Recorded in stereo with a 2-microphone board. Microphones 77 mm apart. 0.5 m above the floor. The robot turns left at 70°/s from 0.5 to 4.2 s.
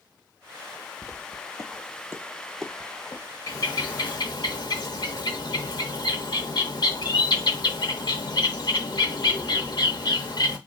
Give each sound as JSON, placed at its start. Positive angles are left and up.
{"t": 1.0, "sound": "footsteps", "side_deg": -5, "distance_m": 0.8}
{"t": 3.5, "sound": "a bird", "azimuth_deg": 130, "distance_m": 0.8}